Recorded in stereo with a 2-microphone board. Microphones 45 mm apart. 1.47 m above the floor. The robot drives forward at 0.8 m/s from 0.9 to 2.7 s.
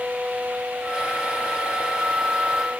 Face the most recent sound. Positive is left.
No sound to turn to.